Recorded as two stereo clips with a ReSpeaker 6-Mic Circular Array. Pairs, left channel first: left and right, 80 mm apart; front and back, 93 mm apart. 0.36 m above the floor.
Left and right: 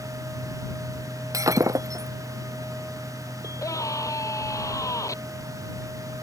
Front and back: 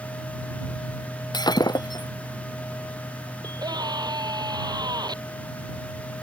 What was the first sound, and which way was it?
Breaking glass, 40° right.